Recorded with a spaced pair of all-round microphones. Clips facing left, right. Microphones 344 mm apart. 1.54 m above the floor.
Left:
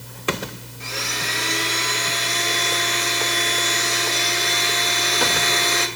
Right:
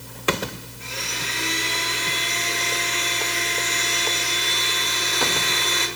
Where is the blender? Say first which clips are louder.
Left 5 dB; 90° left, 2.5 m.